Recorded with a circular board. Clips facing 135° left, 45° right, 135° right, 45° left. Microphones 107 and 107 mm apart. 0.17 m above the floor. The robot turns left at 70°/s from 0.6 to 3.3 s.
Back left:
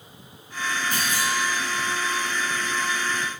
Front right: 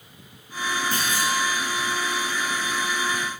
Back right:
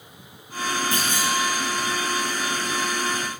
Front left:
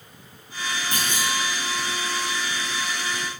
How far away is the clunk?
About 1.3 m.